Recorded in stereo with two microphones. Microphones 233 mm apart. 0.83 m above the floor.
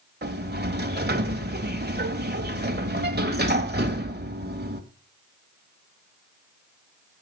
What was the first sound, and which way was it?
A sliding door, 45° right (ahead or behind).